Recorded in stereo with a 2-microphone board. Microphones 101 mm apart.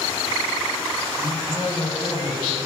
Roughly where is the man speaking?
Left.